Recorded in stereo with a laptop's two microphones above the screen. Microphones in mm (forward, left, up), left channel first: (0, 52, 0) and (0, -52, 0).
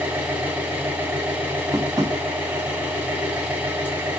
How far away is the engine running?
About 1.7 m.